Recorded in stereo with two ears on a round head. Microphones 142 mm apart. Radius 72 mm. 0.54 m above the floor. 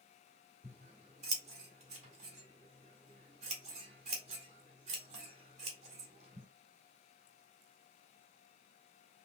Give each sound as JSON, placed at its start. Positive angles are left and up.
{"t": 0.6, "sound": "scissors", "side_deg": -45, "distance_m": 1.7}